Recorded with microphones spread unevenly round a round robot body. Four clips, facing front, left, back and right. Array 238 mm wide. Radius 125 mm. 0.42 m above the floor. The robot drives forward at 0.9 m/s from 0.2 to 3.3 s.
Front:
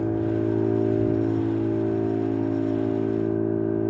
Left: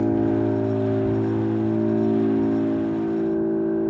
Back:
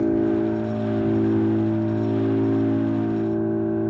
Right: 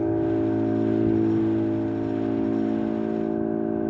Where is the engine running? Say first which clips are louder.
Left 2 dB, back 4 dB; 105° left, 2 m; by 3.9 s 150° left, 4 m.